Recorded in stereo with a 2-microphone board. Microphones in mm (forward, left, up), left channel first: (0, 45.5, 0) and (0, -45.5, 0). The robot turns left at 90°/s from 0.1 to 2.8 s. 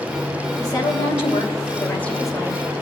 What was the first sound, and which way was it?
A woman speaking, 150° left.